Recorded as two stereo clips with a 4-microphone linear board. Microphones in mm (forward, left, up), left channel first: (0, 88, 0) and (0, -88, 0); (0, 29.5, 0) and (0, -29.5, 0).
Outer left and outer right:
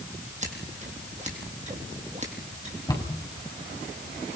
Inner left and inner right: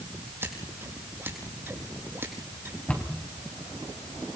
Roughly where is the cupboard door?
Left.